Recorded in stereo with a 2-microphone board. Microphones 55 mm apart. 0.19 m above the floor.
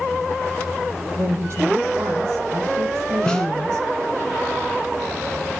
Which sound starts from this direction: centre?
A snare drum, at 3.3 s.